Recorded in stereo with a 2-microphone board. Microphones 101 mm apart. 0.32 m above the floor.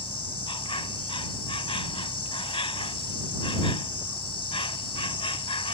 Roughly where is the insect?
Left.